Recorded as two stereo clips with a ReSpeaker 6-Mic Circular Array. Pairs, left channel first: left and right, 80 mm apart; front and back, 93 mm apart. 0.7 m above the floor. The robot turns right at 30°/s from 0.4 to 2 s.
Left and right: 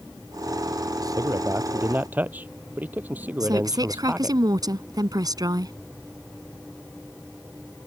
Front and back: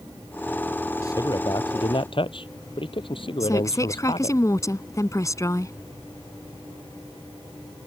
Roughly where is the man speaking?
Ahead right.